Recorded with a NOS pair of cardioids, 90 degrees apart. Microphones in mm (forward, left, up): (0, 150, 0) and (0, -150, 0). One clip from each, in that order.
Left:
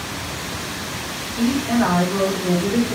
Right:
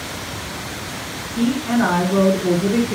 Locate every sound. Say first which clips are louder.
1.4 s a woman speaking: even; 35° right, 2.5 m